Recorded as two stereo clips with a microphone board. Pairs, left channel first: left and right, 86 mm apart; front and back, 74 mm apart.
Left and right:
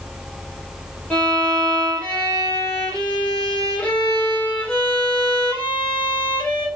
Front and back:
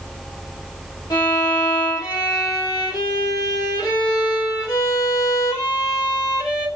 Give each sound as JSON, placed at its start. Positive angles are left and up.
{"t": 1.1, "sound": "a violin", "azimuth_deg": 20, "distance_m": 2.0}